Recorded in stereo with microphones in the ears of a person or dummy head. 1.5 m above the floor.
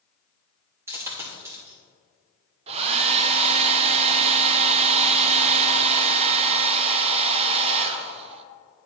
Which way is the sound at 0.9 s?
15° right (ahead or behind).